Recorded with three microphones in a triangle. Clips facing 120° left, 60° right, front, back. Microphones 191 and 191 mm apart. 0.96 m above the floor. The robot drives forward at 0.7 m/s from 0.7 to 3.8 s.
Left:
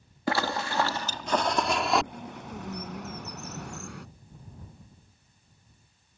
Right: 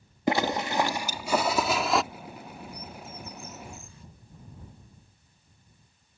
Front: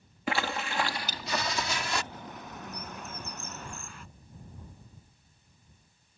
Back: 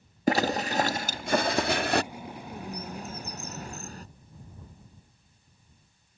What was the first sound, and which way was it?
A zipper, 130° right.